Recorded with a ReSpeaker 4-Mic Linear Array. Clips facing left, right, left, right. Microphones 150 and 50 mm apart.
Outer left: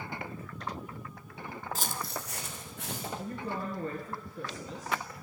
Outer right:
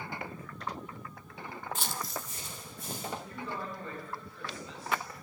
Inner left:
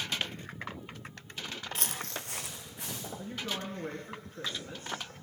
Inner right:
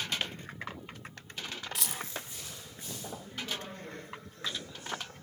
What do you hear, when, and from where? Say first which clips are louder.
1.8 s footsteps: outer left 1 dB, inner left 1 dB; 35° left (ahead or behind), 0.5 m; by 3.1 s 80° left, 1.7 m
3.2 s a woman speaking: outer left 3 dB, inner left 4 dB; 45° left (ahead or behind), 2.5 m